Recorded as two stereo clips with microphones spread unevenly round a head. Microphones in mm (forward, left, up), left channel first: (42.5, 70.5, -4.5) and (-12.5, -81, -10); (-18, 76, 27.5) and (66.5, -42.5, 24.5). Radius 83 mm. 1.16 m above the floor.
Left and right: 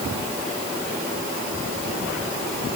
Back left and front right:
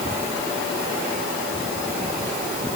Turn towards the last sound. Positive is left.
No sound to turn to.